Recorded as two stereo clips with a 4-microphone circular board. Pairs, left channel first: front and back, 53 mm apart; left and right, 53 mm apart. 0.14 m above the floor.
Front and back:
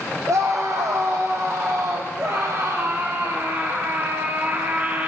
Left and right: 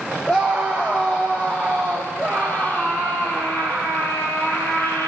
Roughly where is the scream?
Behind.